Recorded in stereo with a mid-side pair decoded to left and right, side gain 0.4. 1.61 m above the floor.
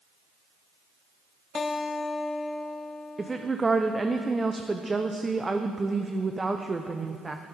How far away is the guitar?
About 0.7 m.